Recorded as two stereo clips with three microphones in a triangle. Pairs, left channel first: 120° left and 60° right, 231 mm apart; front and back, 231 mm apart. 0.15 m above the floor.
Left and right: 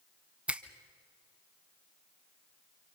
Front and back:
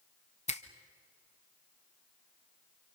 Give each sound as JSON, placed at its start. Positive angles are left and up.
{"t": 0.5, "sound": "a finger snap", "azimuth_deg": 20, "distance_m": 1.2}